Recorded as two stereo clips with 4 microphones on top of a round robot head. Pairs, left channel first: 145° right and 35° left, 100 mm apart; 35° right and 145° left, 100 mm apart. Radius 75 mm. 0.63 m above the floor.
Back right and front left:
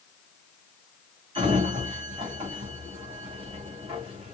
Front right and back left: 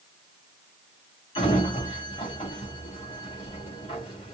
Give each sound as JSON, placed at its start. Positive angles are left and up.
{"t": 1.4, "sound": "a sliding door", "azimuth_deg": 0, "distance_m": 3.0}